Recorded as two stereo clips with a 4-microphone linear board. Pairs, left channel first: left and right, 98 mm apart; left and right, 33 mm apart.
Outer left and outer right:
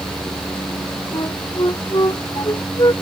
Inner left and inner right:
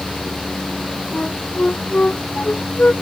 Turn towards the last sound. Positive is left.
turn(degrees=45)  # may be behind; listen again after turning